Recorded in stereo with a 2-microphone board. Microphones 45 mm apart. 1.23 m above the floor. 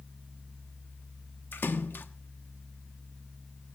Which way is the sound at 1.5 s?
50° left (ahead or behind).